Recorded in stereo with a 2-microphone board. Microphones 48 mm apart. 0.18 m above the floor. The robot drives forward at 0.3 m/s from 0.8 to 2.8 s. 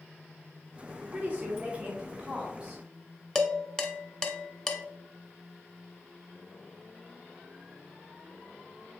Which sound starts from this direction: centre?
Dishes clattering, at 3.4 s.